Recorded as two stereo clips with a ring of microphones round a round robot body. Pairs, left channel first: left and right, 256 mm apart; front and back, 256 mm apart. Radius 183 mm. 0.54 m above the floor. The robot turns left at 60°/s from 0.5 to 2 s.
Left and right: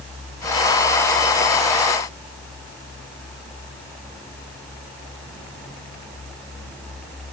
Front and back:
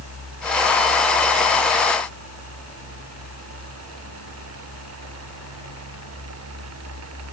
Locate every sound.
Only background noise.